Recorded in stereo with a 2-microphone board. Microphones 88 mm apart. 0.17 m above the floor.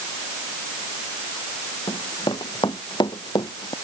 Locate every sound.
1.9 s running footsteps: 65° left (ahead or behind); by 3.8 s 60° left (ahead or behind)